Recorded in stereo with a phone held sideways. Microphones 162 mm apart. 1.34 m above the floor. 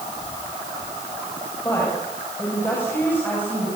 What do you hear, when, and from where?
1.6 s a woman speaking: 15° left (ahead or behind), 8 m; by 3.7 s 10° left (ahead or behind), 9 m